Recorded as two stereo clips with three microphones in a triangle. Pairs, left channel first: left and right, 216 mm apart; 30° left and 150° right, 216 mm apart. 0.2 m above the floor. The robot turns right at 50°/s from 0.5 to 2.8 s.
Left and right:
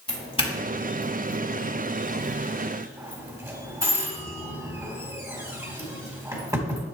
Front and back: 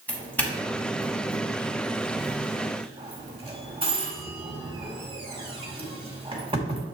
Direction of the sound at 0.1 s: 100° left.